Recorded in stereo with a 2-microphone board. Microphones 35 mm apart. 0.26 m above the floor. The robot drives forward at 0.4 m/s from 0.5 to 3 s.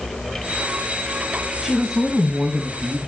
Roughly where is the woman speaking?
Centre.